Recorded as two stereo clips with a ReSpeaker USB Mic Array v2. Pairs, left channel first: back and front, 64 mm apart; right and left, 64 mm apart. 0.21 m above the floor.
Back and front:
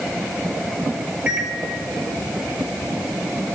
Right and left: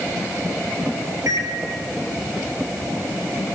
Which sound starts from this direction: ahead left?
A microwave, at 1.3 s.